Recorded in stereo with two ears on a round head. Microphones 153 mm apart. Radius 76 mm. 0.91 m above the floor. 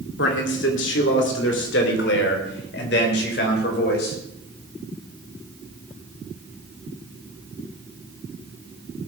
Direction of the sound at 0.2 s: 75° left (ahead or behind).